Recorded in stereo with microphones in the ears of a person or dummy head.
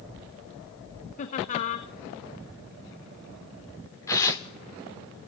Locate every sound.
1.2 s laughter: 40° left (ahead or behind), 1.1 m
4.1 s tearing paper: 10° left (ahead or behind), 1.1 m